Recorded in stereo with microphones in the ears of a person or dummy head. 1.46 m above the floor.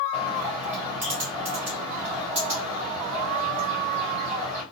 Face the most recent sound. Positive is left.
turn(degrees=-15)  # may be behind; listen again after turning